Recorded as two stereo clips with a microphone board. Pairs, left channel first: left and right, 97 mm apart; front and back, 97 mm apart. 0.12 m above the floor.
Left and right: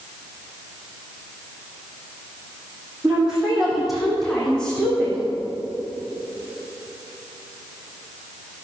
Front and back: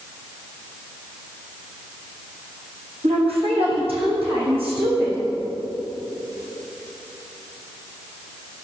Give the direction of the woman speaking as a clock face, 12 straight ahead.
6 o'clock.